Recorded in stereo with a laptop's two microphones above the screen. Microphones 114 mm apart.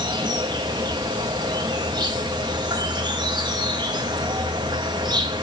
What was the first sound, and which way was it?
An insect, 40° right (ahead or behind).